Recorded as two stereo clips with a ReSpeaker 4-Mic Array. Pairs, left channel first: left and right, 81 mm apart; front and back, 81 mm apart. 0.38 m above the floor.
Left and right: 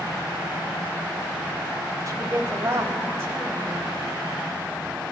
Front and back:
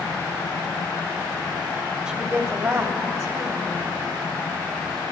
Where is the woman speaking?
110° right, 1.0 m; by 4.0 s 155° right, 2.5 m.